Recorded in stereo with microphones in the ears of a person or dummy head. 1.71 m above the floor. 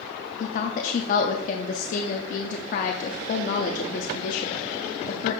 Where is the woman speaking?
55° left (ahead or behind), 0.6 m.